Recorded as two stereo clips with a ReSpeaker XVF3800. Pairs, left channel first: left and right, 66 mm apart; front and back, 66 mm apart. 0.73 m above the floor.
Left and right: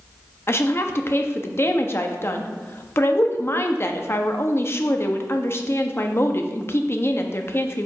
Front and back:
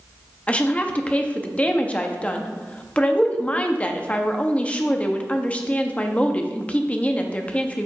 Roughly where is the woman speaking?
Ahead left.